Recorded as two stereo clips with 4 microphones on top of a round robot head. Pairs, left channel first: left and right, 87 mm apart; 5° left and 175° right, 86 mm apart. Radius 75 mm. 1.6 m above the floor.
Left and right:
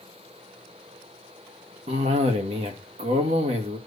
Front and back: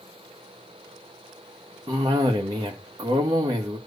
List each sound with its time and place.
1.9 s a cough: 115° right, 2.0 m